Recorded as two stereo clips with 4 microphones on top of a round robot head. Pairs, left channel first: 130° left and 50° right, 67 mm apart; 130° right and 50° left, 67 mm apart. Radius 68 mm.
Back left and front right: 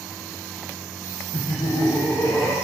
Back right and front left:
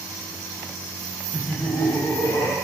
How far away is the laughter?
About 0.6 m.